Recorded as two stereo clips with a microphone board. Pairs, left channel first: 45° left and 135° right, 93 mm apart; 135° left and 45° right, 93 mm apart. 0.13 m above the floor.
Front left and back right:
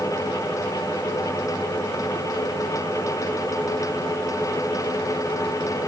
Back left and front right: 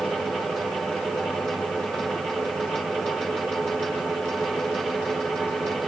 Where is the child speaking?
No child speaking in this recording.